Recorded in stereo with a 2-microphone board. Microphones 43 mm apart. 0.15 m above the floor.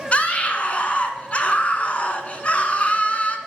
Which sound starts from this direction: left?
A scream, at 0.1 s.